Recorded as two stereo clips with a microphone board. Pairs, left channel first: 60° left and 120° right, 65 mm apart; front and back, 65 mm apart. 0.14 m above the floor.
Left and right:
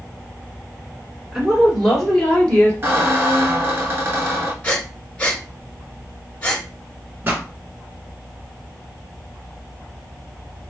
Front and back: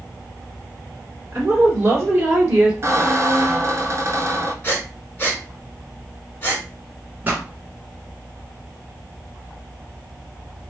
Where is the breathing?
20° left, 1.5 m.